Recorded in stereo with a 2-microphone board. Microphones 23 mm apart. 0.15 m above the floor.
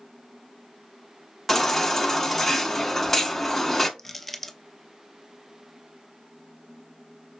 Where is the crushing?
10° left (ahead or behind), 0.6 m.